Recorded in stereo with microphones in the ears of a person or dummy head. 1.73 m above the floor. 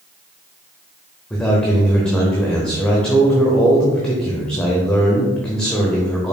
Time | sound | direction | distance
1.3 | a man speaking | 5° left (ahead or behind) | 0.6 m